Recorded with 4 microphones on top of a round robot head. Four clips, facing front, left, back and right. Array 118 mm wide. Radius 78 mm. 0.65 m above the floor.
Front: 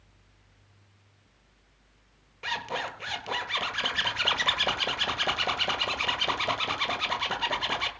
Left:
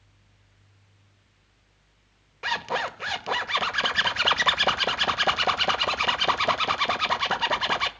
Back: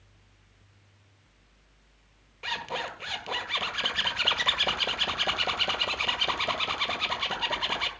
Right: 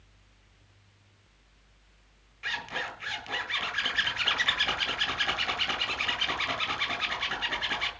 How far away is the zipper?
About 1.8 m.